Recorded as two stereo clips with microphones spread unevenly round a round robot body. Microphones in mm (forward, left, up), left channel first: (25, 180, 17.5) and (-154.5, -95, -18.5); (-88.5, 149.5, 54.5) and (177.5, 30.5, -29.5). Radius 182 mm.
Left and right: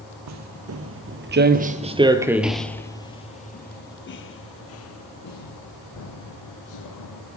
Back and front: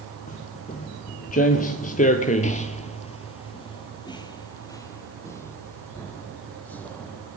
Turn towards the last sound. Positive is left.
turn(degrees=75)